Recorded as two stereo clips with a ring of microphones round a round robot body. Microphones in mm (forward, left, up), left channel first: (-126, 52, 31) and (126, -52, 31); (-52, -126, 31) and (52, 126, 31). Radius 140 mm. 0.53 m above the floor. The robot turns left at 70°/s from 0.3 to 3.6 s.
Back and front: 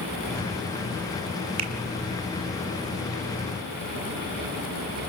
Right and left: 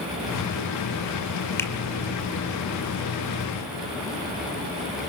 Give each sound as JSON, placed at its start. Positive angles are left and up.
{"t": 1.6, "sound": "a finger snap", "azimuth_deg": -30, "distance_m": 1.7}